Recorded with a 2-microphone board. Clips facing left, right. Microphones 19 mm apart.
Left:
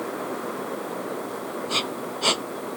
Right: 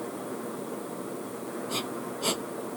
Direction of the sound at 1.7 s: 30° left (ahead or behind).